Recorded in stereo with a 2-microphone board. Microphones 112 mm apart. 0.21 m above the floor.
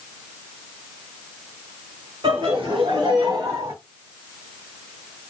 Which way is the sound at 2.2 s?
50° right (ahead or behind).